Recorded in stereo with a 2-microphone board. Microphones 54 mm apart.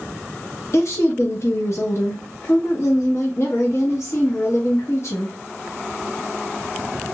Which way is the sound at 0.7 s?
55° left (ahead or behind).